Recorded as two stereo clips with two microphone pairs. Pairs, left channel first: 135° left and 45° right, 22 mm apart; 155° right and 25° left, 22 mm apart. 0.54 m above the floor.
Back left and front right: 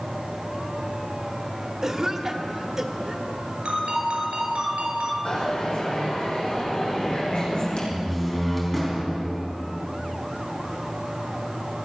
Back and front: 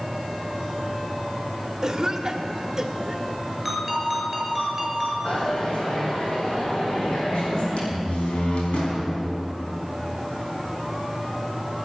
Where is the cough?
5° left, 1.5 m.